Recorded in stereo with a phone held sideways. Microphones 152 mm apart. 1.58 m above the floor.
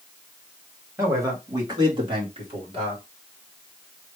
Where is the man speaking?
20° right (ahead or behind), 3 m; by 3.0 s 45° right (ahead or behind), 3 m.